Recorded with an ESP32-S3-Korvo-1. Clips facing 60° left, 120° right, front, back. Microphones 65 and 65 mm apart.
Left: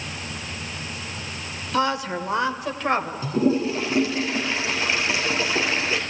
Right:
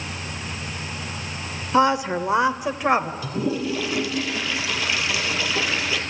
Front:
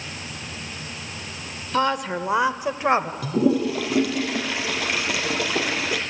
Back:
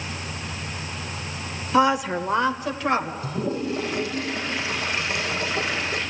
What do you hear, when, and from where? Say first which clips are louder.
1.7 s a woman speaking: right 5 dB, back 3 dB; 130° right, 1.0 m; by 3.1 s 50° right, 1.5 m
3.2 s a toilet flushing: left 4 dB, front 6 dB; straight ahead, 3 m